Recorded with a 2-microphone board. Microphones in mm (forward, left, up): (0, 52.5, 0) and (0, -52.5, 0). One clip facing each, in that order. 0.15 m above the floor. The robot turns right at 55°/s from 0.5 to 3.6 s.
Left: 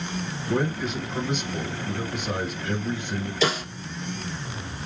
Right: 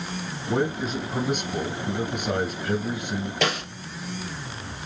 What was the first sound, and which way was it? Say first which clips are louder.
A man speaking: right 1 dB; 155° right.